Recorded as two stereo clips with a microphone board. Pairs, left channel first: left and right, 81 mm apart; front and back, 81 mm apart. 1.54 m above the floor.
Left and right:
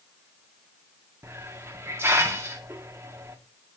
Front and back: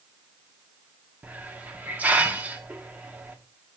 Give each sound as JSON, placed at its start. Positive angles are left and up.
{"t": 1.2, "sound": "a hiss", "azimuth_deg": -120, "distance_m": 1.2}